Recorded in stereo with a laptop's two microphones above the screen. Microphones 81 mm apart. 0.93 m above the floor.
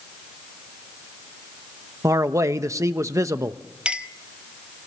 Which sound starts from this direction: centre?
A clink, at 3.9 s.